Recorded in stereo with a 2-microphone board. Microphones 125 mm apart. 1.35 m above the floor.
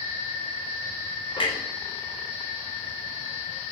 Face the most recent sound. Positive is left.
turn(degrees=45)  # may be behind; listen again after turning